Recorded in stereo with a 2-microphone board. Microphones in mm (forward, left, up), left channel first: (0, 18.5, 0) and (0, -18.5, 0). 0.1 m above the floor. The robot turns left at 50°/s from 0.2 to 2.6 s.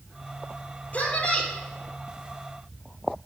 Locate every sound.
0.9 s a woman speaking: 40° left (ahead or behind), 3 m; by 1.5 s 20° left (ahead or behind), 3 m